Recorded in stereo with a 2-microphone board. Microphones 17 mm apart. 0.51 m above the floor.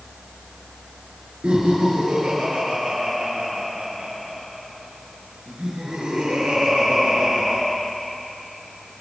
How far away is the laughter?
About 7.5 m.